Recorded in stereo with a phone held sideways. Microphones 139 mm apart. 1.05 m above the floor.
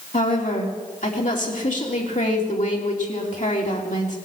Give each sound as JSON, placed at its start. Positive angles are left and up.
{"t": 0.1, "sound": "a woman speaking", "side_deg": 65, "distance_m": 2.5}